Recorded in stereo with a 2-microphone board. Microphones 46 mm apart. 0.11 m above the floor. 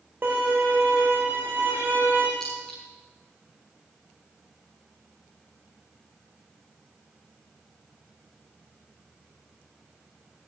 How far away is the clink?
About 9 m.